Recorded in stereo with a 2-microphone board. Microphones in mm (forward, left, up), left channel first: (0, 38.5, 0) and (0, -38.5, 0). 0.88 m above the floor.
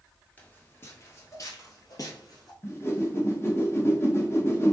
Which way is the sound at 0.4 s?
20° left (ahead or behind).